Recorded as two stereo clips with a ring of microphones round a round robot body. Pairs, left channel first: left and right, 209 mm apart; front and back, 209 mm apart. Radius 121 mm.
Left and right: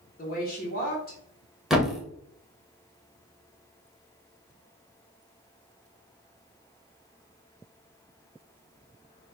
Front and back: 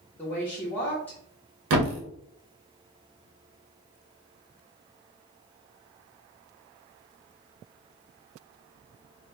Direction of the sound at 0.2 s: 80° left.